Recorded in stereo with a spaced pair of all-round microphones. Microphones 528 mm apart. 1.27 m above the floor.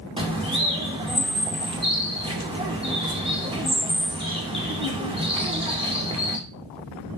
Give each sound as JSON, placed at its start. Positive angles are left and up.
{"t": 0.2, "sound": "a bird", "side_deg": -10, "distance_m": 2.5}